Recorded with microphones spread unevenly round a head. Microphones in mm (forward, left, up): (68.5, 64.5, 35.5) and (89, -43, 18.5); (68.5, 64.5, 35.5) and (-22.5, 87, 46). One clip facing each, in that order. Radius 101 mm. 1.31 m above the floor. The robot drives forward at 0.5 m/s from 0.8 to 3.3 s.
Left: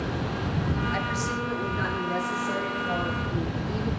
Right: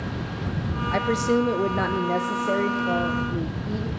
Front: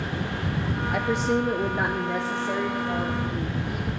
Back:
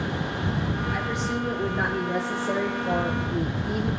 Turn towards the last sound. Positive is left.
turn(degrees=-140)